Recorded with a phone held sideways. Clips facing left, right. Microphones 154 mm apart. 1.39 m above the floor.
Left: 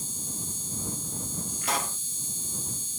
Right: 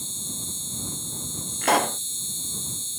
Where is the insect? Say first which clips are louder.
Right 1 dB; 25° right (ahead or behind).